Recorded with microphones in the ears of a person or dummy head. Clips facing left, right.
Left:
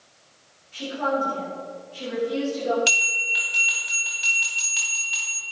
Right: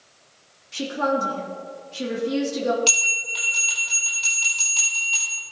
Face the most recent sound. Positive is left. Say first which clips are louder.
# right 3 dB
turn(degrees=20)  # may be behind; listen again after turning